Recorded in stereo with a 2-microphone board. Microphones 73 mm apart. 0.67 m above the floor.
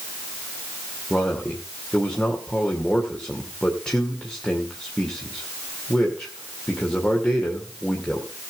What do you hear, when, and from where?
1.1 s a man speaking: 15° left (ahead or behind), 2.5 m